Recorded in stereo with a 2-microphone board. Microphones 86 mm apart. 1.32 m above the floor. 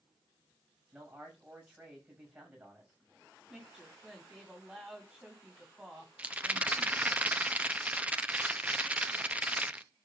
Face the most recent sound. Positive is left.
turn(degrees=-15)  # may be behind; listen again after turning